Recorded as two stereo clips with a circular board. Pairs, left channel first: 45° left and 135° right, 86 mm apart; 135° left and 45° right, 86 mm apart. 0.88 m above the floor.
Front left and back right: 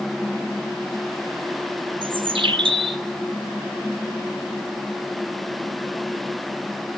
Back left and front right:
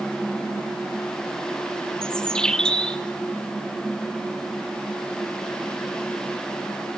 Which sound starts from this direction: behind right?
A bird, at 2.0 s.